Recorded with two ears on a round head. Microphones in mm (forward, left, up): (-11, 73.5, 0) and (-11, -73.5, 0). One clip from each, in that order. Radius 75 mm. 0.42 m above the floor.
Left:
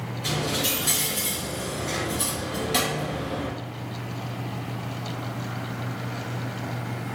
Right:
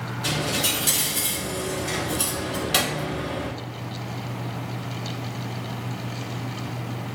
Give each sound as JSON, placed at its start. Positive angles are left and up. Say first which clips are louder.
{"t": 0.2, "sound": "a dropped coin", "louder": "right 2 dB", "side_deg": -35, "distance_m": 1.1}